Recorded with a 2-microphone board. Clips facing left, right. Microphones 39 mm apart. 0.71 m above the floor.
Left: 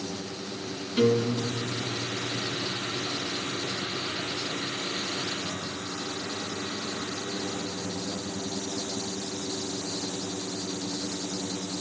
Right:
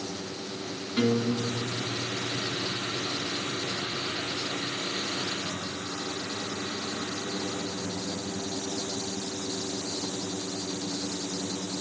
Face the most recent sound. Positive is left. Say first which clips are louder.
# left 2 dB
turn(degrees=-25)  # may be behind; listen again after turning